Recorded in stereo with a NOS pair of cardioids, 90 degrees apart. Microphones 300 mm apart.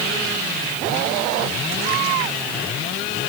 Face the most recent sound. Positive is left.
No sound to turn to.